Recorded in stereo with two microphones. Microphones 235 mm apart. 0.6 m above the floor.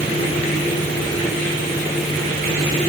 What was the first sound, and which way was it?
Only background noise.